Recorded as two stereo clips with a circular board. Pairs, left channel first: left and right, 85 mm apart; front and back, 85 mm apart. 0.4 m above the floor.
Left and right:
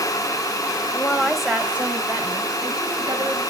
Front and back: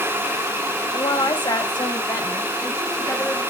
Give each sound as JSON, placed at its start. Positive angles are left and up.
{"t": 0.9, "sound": "a woman speaking", "azimuth_deg": 20, "distance_m": 1.8}